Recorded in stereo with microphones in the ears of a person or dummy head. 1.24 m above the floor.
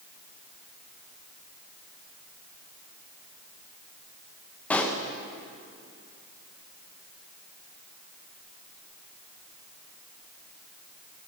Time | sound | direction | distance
4.7 | a pop | 10° left (ahead or behind) | 0.7 m